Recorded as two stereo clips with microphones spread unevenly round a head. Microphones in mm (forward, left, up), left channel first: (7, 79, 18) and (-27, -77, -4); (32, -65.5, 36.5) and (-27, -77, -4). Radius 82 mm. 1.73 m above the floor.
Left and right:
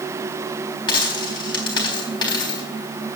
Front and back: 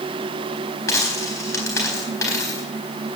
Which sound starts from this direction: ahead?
A dropped coin, at 0.9 s.